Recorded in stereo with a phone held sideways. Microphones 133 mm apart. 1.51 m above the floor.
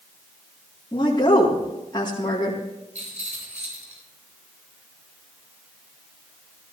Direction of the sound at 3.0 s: 60° right (ahead or behind).